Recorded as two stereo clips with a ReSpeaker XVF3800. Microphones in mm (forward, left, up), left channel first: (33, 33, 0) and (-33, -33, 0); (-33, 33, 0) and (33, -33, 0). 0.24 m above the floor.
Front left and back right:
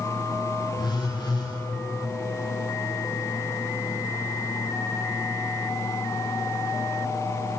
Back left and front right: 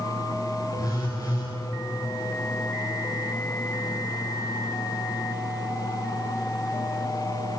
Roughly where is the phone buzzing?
Left.